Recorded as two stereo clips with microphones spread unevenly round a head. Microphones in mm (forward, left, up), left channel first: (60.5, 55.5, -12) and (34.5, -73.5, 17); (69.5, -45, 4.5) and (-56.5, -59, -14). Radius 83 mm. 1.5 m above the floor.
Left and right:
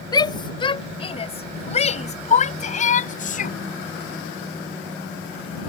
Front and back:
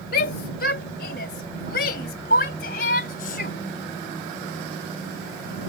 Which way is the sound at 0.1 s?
15° left.